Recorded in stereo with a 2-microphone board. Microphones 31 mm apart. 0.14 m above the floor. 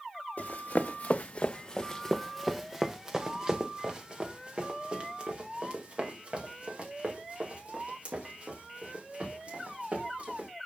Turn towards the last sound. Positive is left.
turn(degrees=-45)  # may be behind; listen again after turning